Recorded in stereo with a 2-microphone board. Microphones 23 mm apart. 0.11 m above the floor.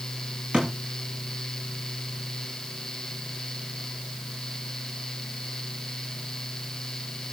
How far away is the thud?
About 9.5 m.